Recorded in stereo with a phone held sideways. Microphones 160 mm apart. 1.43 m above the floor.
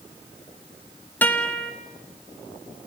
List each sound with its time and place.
1.2 s a guitar: 10° left (ahead or behind), 1.9 m